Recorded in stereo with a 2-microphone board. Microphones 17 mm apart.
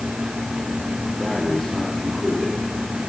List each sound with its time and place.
1.2 s breathing: 30° left (ahead or behind), 8.5 m